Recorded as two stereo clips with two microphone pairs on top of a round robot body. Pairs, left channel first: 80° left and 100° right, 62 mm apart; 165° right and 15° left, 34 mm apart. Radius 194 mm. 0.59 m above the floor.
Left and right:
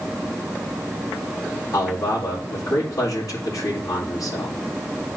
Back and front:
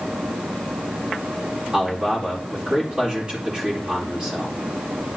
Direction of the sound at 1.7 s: 65° left.